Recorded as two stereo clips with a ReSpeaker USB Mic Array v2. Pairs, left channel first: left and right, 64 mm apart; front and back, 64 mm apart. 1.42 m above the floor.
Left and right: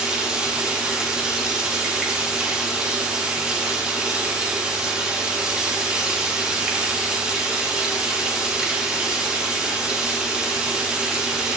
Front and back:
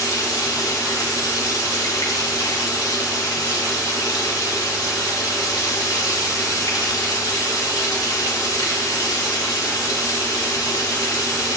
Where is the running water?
15° right, 2.5 m.